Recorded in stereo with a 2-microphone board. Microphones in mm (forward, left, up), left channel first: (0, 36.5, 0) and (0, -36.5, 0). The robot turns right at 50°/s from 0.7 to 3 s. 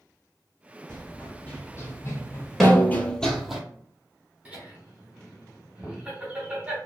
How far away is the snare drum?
About 0.7 m.